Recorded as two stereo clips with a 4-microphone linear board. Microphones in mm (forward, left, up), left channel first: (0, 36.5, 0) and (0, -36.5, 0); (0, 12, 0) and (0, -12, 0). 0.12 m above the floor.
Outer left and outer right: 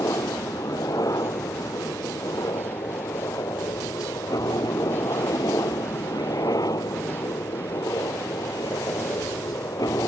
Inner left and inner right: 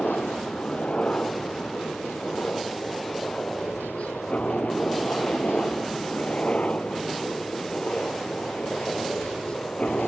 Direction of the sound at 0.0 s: 60° left (ahead or behind).